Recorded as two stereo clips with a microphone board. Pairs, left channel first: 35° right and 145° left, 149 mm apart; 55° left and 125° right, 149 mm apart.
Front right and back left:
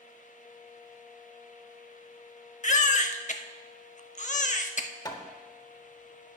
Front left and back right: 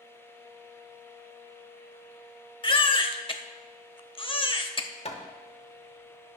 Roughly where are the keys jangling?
I don't hear keys jangling.